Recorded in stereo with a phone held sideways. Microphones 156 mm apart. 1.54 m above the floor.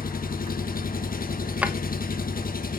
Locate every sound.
0.0 s an engine running: 60° left (ahead or behind), 1.1 m
1.6 s a drawer: 10° right (ahead or behind), 1.0 m